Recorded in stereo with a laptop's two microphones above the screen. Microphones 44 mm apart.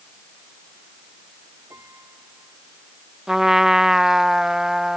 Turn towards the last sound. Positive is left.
turn(degrees=-10)  # may be behind; listen again after turning